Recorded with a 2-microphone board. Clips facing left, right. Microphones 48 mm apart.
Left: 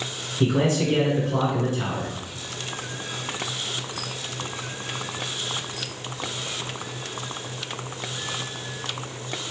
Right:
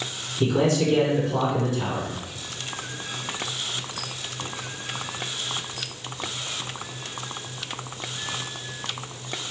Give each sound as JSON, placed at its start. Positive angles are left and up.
{"t": 0.4, "sound": "a man speaking", "side_deg": 30, "distance_m": 1.8}